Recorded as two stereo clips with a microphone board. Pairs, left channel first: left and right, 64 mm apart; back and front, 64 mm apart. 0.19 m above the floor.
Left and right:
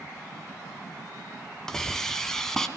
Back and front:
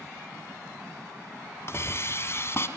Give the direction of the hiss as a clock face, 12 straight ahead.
6 o'clock.